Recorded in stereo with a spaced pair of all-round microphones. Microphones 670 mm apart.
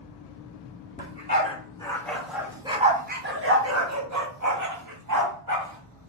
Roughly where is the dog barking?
Centre.